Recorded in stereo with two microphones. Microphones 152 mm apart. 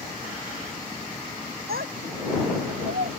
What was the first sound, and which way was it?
A child speaking, 80° right.